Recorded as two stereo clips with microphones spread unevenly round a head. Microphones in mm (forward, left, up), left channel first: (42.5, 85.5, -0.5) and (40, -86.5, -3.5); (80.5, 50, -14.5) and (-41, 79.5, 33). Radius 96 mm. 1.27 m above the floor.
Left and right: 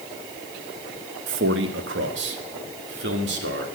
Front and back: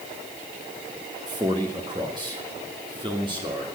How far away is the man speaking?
About 1.2 m.